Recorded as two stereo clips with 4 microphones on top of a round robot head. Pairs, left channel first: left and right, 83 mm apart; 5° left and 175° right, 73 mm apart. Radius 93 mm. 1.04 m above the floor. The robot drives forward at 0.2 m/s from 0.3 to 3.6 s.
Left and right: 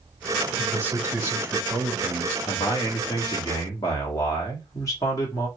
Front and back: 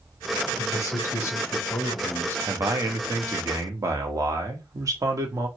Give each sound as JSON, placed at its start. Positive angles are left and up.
{"t": 0.6, "sound": "a man speaking", "azimuth_deg": -25, "distance_m": 0.9}
{"t": 2.5, "sound": "a man speaking", "azimuth_deg": 135, "distance_m": 0.9}